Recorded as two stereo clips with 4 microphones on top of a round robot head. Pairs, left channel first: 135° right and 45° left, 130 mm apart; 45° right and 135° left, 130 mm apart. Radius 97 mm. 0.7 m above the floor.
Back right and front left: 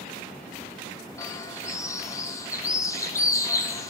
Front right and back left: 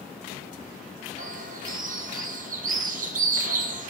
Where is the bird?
155° left, 0.8 m.